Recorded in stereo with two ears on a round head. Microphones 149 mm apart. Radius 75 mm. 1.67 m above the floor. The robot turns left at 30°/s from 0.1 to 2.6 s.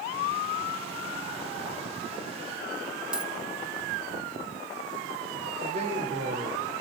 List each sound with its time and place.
3.1 s a dropped coin: 5° right (ahead or behind), 1.2 m
5.6 s a man speaking: 45° right (ahead or behind), 7.5 m